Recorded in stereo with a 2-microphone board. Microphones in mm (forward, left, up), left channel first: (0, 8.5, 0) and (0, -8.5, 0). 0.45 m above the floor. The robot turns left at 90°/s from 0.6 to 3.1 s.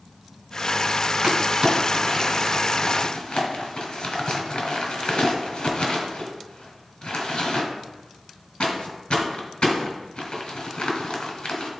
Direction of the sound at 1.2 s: 85° right.